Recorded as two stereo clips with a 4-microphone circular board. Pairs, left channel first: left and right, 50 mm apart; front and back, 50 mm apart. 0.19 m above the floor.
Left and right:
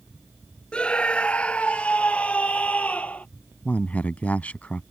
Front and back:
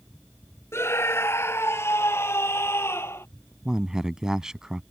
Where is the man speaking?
115° left.